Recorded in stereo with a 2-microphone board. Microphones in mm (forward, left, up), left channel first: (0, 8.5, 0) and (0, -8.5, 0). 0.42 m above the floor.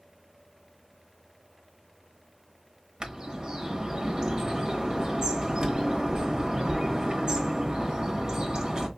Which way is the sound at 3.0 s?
50° right (ahead or behind).